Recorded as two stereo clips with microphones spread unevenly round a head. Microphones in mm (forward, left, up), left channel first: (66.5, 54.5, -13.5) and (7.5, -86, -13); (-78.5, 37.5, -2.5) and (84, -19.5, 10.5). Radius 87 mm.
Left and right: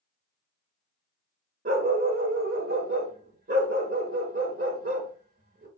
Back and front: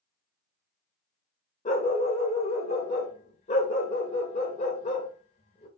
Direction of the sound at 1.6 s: 145° right.